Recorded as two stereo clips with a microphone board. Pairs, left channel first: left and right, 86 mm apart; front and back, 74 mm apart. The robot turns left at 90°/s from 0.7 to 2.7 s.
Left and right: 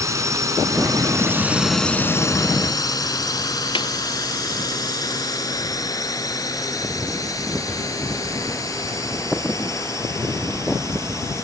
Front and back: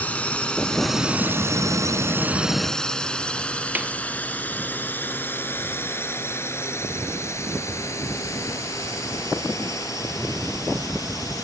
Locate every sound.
0.0 s a drone: 60° right; by 11.4 s 40° left
3.8 s a snare drum: 110° left